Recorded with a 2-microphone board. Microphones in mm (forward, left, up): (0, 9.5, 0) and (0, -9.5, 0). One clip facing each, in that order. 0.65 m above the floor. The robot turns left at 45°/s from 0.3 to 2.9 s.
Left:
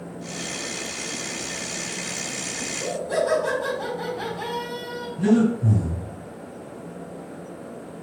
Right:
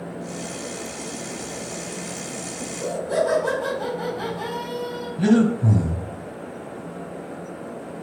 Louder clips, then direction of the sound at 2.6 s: Right 2 dB; 15° right (ahead or behind).